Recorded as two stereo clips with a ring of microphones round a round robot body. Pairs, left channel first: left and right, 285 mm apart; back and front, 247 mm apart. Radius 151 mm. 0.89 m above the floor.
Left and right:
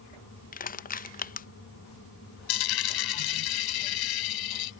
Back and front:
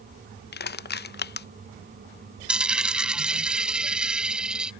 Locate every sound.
0.5 s crushing: 145° left
2.5 s a dropped coin: 85° left